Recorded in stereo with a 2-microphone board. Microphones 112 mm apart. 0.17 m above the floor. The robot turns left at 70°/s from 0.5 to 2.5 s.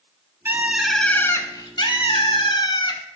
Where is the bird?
155° right, 0.5 m; by 3.0 s 65° left, 0.5 m.